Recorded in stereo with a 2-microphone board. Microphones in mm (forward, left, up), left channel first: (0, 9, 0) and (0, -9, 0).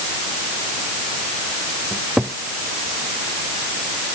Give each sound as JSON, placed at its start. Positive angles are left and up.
{"t": 1.9, "sound": "a cupboard door", "side_deg": -65}